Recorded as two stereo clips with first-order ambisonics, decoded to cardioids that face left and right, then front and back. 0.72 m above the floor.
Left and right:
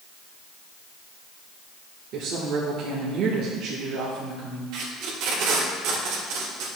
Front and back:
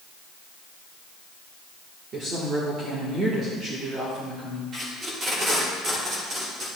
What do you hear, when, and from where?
2.1 s a woman speaking: 125° right, 1.8 m
4.7 s tape being pulled: 115° right, 2.5 m